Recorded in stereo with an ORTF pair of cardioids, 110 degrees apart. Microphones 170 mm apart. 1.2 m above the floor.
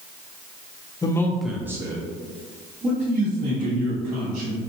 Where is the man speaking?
25° left, 0.5 m; by 4.6 s 55° right, 1.9 m.